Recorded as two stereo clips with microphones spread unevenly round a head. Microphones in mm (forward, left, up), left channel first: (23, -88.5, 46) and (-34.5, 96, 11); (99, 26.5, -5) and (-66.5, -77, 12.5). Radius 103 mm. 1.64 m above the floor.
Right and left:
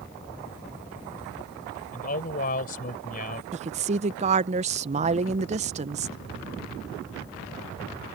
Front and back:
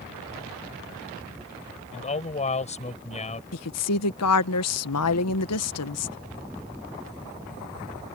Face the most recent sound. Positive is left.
turn(degrees=45)